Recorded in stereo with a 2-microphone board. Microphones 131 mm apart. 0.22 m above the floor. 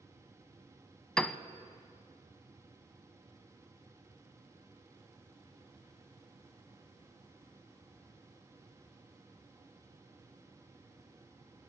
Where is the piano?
5° left (ahead or behind), 0.6 m.